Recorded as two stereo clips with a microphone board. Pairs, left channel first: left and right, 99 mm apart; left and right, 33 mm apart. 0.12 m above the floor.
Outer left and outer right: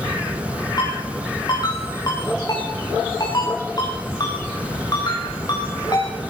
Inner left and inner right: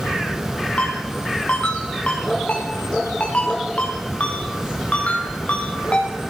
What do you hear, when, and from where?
0.8 s a ringtone: 40° left (ahead or behind), 8.5 m